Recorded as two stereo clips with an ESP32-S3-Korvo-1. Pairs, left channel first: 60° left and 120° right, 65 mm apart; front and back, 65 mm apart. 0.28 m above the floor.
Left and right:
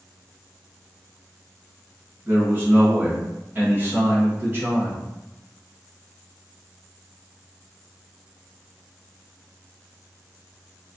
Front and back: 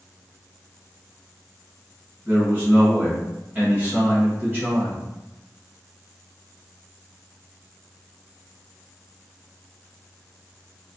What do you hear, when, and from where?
2.2 s a man speaking: 145° right, 1.2 m